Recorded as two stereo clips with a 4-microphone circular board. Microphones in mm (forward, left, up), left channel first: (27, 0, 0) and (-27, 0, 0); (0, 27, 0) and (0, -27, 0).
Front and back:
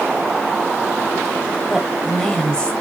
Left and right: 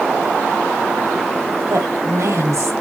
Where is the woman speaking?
95° right, 3 m; by 2.7 s 65° right, 2.5 m.